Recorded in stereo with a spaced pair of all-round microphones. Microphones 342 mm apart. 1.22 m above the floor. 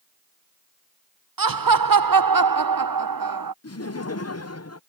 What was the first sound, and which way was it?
Laughter, 75° right (ahead or behind).